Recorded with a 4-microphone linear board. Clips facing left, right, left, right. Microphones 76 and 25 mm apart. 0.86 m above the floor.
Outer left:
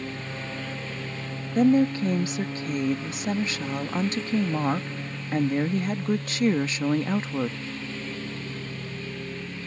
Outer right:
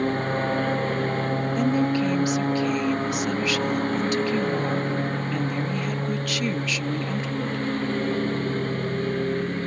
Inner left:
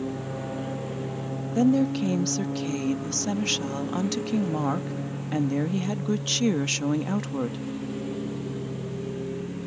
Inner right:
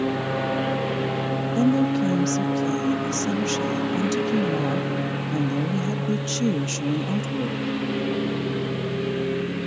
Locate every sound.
0.0 s a lawn mower: 50° right (ahead or behind)
1.6 s a woman speaking: 30° left (ahead or behind)